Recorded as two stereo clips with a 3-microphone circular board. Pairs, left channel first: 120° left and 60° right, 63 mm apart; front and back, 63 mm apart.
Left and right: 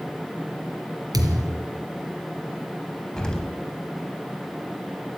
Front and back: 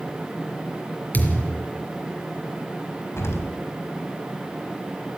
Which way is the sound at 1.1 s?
65° right.